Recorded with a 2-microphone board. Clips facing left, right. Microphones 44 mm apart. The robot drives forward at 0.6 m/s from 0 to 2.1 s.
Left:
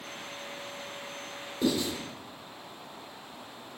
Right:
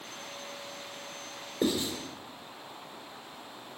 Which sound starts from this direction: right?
Writing, at 1.6 s.